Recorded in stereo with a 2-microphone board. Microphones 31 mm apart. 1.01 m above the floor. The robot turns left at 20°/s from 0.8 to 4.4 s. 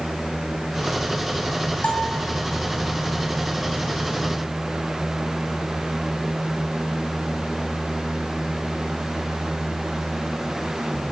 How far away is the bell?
About 3.5 m.